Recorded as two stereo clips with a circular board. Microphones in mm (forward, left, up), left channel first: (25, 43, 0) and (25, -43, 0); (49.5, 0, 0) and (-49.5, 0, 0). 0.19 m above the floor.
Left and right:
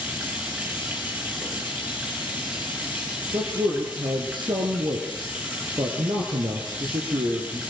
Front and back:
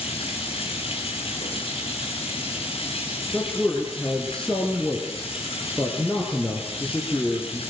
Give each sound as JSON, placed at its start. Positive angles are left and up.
{"t": 0.0, "sound": "running water", "azimuth_deg": -20, "distance_m": 5.5}
{"t": 3.3, "sound": "a man speaking", "azimuth_deg": -80, "distance_m": 3.5}